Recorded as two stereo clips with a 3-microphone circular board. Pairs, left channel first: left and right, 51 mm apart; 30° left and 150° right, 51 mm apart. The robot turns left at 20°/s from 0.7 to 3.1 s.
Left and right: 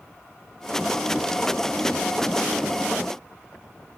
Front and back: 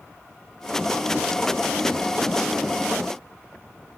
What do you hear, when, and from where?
Only background noise.